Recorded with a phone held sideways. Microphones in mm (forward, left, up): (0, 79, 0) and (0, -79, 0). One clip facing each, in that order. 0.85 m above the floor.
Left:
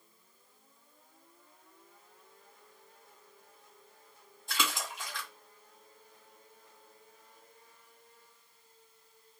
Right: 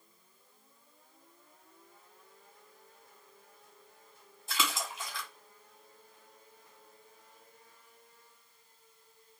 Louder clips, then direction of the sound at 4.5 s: Right 1 dB; centre (ahead or behind).